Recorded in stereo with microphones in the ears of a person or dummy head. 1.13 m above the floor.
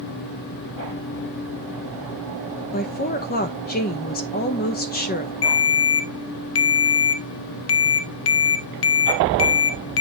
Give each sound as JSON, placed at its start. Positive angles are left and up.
{"t": 2.7, "sound": "a woman speaking", "side_deg": 45, "distance_m": 0.8}
{"t": 5.4, "sound": "a ringtone", "side_deg": 70, "distance_m": 0.6}